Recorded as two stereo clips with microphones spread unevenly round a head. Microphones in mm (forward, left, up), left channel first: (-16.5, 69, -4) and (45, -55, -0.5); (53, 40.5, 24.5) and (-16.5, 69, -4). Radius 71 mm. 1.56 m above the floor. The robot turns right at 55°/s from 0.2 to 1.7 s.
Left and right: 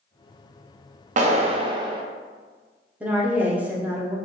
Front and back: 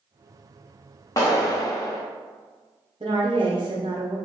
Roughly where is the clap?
Ahead right.